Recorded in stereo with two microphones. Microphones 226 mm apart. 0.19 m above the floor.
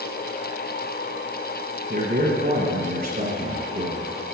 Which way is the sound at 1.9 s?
45° right (ahead or behind).